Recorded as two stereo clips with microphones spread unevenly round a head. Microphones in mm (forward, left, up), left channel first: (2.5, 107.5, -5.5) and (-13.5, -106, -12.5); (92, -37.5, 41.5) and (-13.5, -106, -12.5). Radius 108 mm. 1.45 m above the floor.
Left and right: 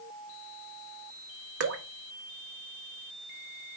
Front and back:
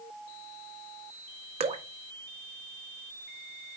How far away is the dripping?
About 0.8 m.